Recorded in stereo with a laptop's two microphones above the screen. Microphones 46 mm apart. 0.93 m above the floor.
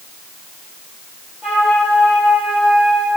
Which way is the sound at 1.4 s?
20° right (ahead or behind).